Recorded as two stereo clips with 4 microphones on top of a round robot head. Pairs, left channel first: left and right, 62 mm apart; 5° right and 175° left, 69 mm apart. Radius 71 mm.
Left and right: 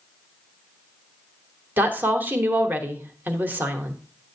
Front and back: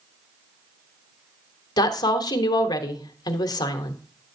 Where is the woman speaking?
25° right, 1.0 m.